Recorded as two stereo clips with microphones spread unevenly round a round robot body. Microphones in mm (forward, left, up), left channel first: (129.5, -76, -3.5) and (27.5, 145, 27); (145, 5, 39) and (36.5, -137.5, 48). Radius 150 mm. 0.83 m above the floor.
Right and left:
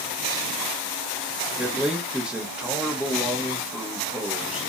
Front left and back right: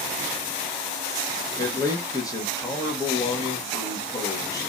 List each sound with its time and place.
1.6 s a man speaking: 20° left, 0.9 m